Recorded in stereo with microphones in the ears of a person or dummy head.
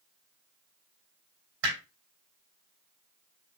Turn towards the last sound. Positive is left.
turn(degrees=-70)  # may be behind; listen again after turning